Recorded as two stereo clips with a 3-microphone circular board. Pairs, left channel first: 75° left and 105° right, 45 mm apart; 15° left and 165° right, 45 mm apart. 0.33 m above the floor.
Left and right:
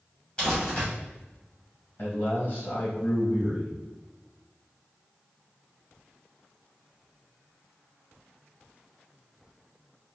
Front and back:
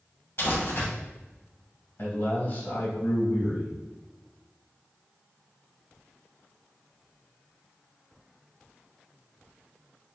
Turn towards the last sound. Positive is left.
turn(degrees=45)